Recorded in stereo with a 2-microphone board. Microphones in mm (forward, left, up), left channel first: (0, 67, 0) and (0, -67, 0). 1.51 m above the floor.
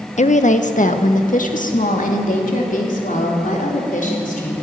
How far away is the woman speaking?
About 0.9 m.